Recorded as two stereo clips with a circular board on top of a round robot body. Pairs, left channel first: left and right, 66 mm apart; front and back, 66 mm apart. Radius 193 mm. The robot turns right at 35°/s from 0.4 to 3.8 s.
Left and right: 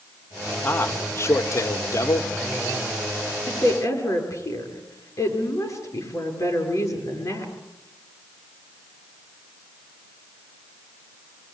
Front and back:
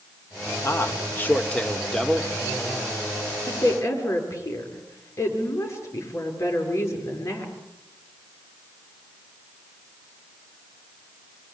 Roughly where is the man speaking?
Ahead left.